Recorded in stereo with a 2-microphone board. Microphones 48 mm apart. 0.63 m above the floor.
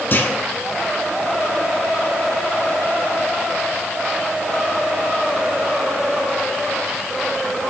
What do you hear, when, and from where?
0.1 s a clunk: 45° left (ahead or behind), 1.0 m